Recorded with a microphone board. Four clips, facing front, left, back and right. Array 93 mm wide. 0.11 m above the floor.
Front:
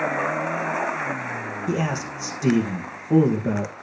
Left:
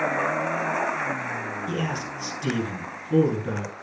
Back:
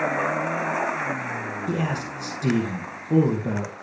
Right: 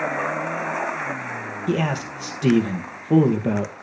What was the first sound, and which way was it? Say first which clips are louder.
A man speaking: right 9 dB, front 2 dB; 75° right.